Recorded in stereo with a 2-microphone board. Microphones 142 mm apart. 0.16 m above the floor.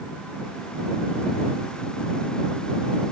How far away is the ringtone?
I don't hear a ringtone.